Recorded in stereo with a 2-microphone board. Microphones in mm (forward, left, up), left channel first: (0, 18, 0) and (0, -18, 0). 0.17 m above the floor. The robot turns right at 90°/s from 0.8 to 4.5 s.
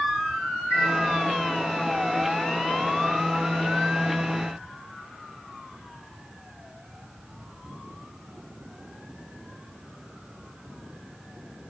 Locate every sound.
0.7 s a chime: 40° right (ahead or behind), 7 m; by 0.9 s 30° right (ahead or behind), 7 m